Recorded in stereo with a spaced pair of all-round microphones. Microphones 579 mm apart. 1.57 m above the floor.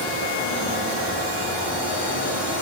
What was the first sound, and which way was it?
Only background noise.